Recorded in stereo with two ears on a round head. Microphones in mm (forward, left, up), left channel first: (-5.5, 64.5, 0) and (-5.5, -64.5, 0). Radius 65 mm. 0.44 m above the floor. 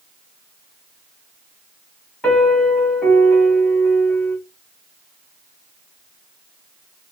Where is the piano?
5° left (ahead or behind), 1.5 m.